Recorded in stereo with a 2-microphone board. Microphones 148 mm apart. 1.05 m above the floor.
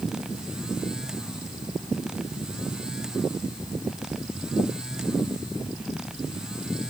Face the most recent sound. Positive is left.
No sound to turn to.